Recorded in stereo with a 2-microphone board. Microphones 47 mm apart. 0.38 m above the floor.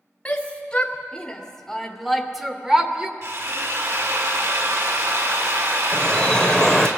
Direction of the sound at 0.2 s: 30° left (ahead or behind).